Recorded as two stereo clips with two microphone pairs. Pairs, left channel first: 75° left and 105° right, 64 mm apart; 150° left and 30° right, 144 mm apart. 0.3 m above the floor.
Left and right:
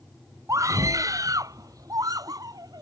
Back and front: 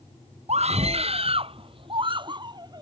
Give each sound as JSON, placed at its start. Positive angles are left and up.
{"t": 0.5, "sound": "a scream", "azimuth_deg": -70}